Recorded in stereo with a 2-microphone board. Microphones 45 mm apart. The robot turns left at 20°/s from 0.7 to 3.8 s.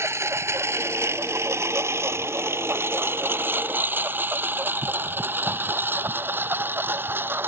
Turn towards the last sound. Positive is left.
turn(degrees=-50)  # may be behind; listen again after turning